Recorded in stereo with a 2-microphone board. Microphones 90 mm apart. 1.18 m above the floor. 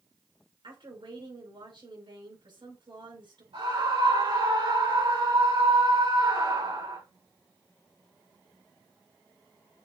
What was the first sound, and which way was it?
A woman speaking, 65° right (ahead or behind).